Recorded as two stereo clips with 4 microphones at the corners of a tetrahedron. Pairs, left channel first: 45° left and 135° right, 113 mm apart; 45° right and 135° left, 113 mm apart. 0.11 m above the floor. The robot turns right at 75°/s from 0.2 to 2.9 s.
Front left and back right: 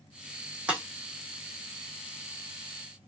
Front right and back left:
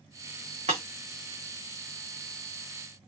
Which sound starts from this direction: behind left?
Breaking glass, at 0.7 s.